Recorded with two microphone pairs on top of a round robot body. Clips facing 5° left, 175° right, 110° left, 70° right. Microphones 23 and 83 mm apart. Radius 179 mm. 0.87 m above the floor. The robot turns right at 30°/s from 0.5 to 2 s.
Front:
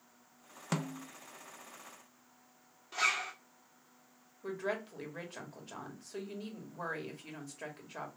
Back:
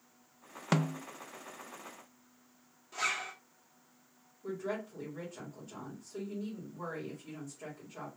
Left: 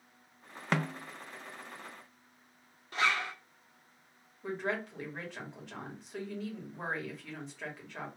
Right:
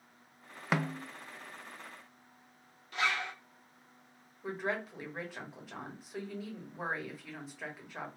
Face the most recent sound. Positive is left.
turn(degrees=10)